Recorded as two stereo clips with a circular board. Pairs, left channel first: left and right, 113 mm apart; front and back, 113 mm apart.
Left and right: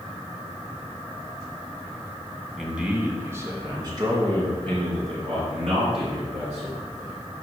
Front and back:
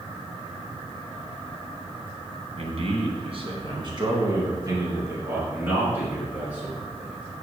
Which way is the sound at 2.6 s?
175° right.